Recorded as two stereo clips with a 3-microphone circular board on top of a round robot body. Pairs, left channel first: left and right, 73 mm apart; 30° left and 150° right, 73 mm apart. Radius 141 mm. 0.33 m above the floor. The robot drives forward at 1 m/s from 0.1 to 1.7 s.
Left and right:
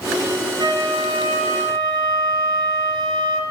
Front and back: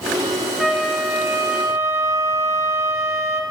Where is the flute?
65° right, 2 m; by 3.4 s 95° right, 2.0 m.